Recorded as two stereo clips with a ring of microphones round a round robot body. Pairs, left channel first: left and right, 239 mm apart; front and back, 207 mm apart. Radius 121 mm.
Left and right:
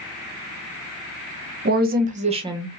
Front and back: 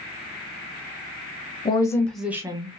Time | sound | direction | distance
1.6 | a woman speaking | 60° right | 0.7 m